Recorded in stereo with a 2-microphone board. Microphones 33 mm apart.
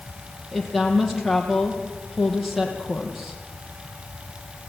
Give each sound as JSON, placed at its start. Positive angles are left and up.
{"t": 0.5, "sound": "a woman speaking", "side_deg": -5, "distance_m": 5.0}